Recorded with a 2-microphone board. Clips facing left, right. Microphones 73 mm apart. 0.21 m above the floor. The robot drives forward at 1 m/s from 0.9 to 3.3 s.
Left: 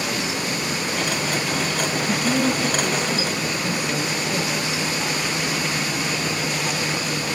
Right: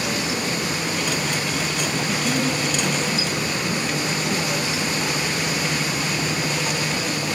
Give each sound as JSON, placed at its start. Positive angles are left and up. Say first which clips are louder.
{"t": 2.1, "sound": "a woman speaking", "louder": "left 3 dB", "side_deg": 15, "distance_m": 1.4}